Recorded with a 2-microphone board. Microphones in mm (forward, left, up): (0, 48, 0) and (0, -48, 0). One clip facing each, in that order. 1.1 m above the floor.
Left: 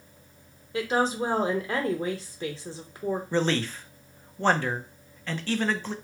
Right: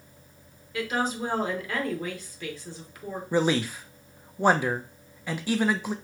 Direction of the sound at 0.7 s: 30° left (ahead or behind).